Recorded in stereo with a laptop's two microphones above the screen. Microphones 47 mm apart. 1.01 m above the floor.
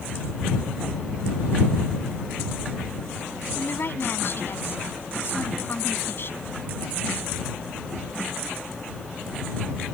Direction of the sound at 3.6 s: 55° left (ahead or behind).